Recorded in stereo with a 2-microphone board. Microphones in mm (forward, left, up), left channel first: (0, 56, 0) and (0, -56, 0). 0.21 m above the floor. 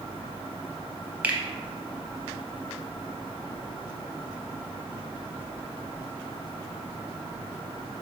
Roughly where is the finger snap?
Centre.